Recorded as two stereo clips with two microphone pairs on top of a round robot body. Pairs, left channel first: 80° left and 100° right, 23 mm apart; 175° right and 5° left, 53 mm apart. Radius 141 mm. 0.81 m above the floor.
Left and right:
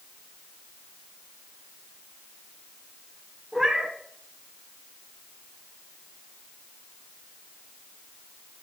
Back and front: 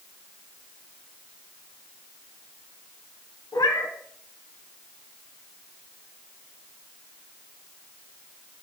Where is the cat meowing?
170° right, 1.4 m.